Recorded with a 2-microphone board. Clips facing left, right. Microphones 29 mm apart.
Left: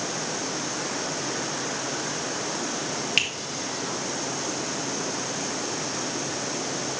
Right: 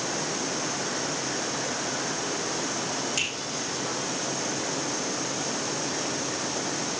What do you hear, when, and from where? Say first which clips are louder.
3.2 s a finger snap: left 7 dB; 50° left (ahead or behind), 2 m